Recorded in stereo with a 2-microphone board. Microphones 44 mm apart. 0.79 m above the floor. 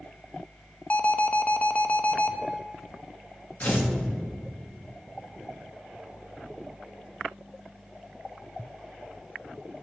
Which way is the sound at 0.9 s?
35° left (ahead or behind).